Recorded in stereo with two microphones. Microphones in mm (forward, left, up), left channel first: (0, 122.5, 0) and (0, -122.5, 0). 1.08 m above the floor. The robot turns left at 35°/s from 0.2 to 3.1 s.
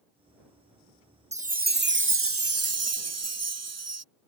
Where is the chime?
25° right; by 4.0 s 90° right.